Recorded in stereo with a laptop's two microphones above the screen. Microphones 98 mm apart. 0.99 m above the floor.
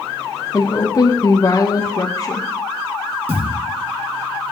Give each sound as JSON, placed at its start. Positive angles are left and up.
{"t": 0.5, "sound": "a woman speaking", "side_deg": 35, "distance_m": 0.8}
{"t": 3.3, "sound": "a thud", "side_deg": -75, "distance_m": 2.5}